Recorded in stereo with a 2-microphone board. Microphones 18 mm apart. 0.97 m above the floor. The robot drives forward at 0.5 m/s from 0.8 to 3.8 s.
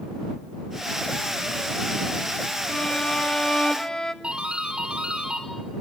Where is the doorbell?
65° right (ahead or behind), 4 m.